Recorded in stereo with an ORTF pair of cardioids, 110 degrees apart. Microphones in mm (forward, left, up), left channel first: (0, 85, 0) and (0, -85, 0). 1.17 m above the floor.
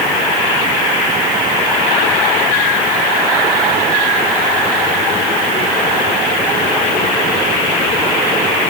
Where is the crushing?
I don't hear crushing.